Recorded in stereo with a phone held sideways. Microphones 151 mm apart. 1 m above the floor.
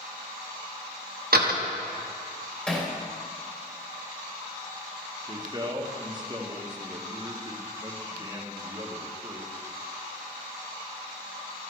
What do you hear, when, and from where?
1.3 s a door slam: 85° right, 1.2 m
2.7 s hammering: 10° left (ahead or behind), 2.5 m
5.3 s a man speaking: 30° right (ahead or behind), 1.4 m